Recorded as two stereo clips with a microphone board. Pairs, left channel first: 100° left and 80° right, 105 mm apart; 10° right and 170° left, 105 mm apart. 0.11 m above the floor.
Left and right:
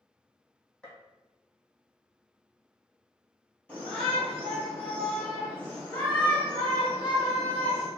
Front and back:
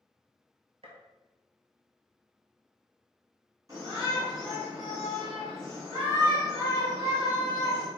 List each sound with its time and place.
0.8 s a gunshot: straight behind, 0.9 m
3.7 s a shout: 165° left, 1.9 m